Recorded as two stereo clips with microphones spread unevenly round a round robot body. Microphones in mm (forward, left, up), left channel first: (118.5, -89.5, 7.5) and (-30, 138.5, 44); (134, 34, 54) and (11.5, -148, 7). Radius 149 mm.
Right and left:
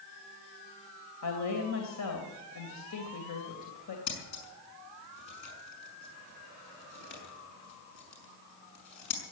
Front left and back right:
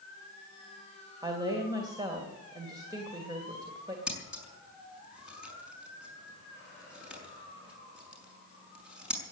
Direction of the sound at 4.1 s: 40° right.